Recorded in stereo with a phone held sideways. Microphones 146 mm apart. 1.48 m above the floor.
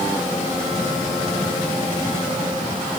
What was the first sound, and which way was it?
Only background noise.